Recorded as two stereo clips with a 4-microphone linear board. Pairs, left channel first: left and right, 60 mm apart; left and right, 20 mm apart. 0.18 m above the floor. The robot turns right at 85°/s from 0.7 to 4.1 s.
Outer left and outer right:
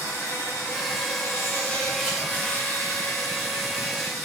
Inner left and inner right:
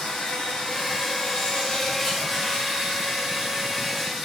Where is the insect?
70° left, 6 m; by 4.2 s straight ahead, 6 m.